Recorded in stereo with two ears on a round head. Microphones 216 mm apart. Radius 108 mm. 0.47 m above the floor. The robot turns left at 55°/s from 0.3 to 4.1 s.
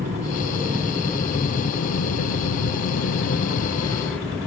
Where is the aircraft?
35° right (ahead or behind); by 4.5 s 5° left (ahead or behind).